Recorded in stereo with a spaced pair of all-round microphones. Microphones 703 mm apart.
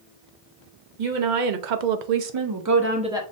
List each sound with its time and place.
1.0 s a woman speaking: 75° right (ahead or behind), 1.0 m; by 3.2 s 5° right (ahead or behind), 0.8 m